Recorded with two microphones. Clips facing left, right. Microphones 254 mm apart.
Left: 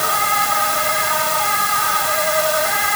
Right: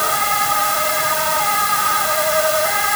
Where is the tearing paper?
No tearing paper in this recording.